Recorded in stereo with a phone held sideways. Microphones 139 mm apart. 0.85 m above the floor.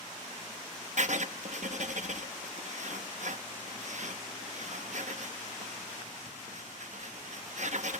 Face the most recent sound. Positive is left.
turn(degrees=-60)  # may be behind; listen again after turning